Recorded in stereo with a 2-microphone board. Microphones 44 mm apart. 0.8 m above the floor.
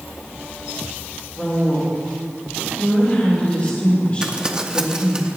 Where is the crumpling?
15° right (ahead or behind), 0.7 m.